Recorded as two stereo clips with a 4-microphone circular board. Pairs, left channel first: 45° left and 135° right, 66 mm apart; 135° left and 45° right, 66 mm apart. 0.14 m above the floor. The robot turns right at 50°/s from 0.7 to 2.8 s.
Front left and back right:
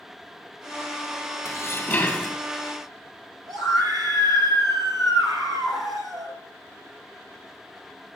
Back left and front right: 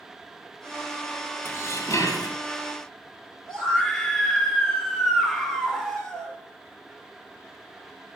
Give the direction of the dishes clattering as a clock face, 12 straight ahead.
9 o'clock.